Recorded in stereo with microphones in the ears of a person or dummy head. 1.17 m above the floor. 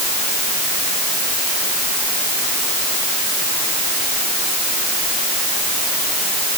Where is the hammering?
No hammering in this recording.